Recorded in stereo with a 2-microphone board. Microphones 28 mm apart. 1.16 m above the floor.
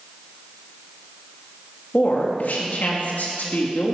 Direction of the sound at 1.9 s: 75° left (ahead or behind).